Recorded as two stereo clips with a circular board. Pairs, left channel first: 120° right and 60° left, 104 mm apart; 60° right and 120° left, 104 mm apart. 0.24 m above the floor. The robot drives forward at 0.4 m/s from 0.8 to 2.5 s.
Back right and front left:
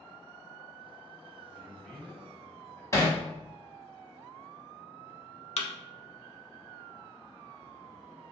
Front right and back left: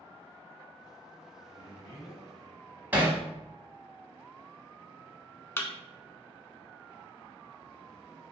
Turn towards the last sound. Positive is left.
turn(degrees=-125)